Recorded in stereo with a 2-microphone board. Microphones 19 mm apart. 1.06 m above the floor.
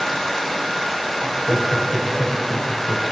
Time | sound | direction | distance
1.2 | laughter | 30° right (ahead or behind) | 6.5 m